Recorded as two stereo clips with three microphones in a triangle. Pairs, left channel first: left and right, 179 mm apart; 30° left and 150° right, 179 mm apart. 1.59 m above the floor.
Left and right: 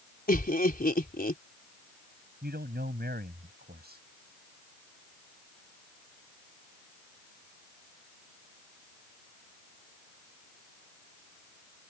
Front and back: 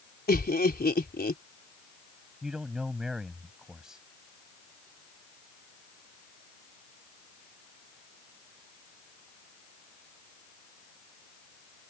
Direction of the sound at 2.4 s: 65° right.